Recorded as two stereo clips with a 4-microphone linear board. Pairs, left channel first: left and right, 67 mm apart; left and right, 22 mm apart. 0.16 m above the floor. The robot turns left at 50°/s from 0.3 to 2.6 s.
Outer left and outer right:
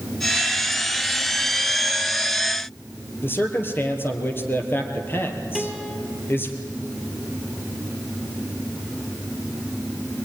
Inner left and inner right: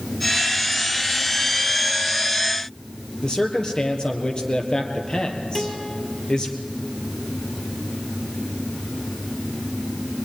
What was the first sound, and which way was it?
A man speaking, 35° left (ahead or behind).